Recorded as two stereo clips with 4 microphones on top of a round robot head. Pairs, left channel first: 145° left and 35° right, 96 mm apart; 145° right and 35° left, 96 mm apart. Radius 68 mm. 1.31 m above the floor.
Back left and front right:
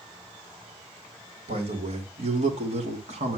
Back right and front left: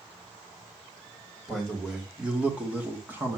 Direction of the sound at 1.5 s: 55° right.